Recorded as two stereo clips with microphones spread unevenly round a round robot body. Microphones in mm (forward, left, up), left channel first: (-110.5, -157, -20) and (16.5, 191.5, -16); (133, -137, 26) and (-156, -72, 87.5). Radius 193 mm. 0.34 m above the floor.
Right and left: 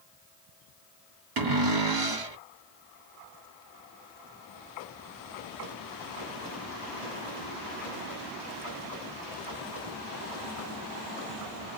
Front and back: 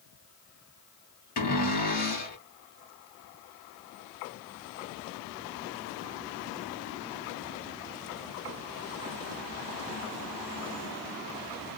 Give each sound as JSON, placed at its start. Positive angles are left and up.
{"t": 1.4, "sound": "a cupboard door", "azimuth_deg": 40, "distance_m": 1.5}